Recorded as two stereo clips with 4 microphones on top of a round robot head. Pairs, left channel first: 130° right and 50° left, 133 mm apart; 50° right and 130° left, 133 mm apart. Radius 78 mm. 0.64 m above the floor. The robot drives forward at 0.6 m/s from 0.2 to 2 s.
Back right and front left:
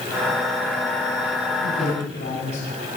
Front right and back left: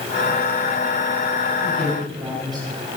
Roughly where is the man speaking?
Behind.